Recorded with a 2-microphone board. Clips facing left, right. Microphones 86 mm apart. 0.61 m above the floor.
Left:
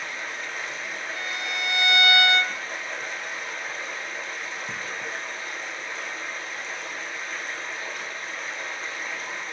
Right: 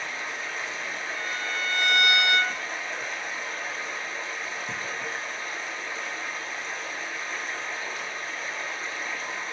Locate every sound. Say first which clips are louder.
0.0 s running water: even; centre (ahead or behind), 0.8 m
1.1 s a violin: even; 80° left, 0.6 m